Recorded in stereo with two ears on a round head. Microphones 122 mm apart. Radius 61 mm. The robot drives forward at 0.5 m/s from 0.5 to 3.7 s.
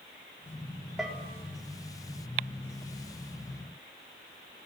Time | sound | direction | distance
1.0 | a bell | 5° right (ahead or behind) | 4 m